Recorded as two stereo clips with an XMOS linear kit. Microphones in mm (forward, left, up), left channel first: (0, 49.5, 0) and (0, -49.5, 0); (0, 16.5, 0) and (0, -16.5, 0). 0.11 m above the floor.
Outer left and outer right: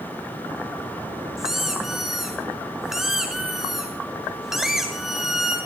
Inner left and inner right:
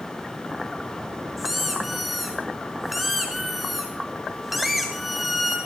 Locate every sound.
1.4 s a squeak: 5° right (ahead or behind), 2 m